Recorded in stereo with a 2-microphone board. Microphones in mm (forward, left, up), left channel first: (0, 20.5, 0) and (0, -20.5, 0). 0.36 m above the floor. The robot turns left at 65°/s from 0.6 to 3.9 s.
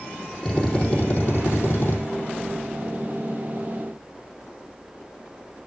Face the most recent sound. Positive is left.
turn(degrees=-40)